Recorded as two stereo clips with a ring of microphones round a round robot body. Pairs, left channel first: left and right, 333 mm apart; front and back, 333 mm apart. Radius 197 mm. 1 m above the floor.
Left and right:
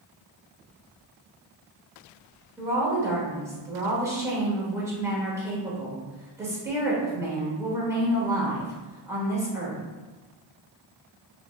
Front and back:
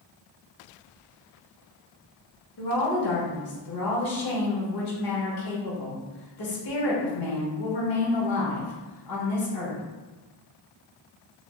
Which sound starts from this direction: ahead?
A woman speaking, at 2.6 s.